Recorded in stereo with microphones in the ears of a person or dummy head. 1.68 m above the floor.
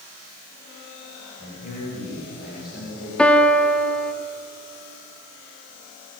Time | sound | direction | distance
1.4 | a man speaking | 70° left (ahead or behind) | 9.5 m
3.2 | a piano | 5° left (ahead or behind) | 1.1 m